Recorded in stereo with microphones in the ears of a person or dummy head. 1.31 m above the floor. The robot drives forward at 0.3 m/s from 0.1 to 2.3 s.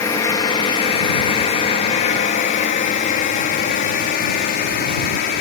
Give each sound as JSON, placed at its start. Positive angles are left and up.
{"t": 0.0, "sound": "a drone", "side_deg": 15}